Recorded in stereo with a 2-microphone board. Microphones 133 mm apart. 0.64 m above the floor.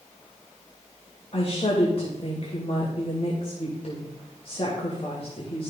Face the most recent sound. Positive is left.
turn(degrees=50)  # may be behind; listen again after turning